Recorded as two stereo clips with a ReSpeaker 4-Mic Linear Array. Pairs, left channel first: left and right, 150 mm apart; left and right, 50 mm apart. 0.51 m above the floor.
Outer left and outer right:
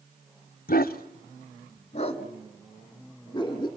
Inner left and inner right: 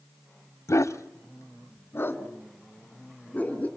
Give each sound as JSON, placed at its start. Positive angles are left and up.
{"t": 0.7, "sound": "a dog barking", "side_deg": 80, "distance_m": 1.2}